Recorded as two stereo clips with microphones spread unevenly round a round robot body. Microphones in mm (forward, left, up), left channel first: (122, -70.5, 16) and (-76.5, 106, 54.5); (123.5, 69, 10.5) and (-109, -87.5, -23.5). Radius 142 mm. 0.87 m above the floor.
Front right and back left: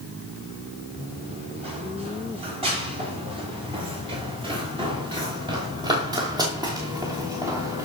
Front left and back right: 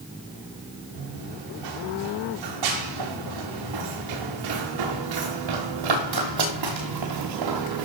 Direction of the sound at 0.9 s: 150° right.